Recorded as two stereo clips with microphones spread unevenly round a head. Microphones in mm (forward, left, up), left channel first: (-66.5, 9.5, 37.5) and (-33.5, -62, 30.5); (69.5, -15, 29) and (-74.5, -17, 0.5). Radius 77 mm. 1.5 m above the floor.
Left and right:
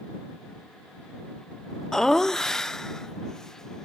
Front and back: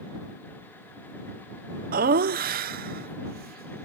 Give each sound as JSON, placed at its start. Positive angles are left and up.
{"t": 1.9, "sound": "laughter", "azimuth_deg": -160}